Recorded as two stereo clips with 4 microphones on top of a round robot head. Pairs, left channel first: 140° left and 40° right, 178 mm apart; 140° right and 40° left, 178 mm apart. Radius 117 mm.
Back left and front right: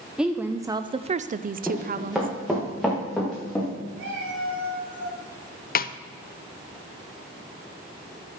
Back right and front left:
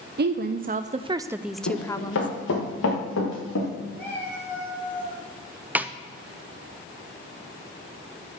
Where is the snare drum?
120° left, 0.7 m.